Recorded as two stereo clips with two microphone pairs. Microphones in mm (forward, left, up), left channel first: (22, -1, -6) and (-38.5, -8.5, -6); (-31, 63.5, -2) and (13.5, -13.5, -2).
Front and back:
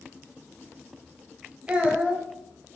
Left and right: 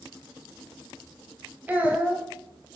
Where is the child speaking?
115° right, 0.9 m.